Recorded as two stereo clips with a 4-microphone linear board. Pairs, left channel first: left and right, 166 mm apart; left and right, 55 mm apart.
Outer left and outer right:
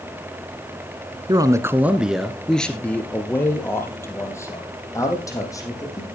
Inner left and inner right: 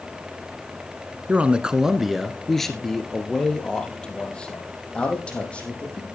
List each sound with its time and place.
1.3 s a man speaking: 25° right (ahead or behind), 1.1 m; by 6.1 s 20° left (ahead or behind), 5.5 m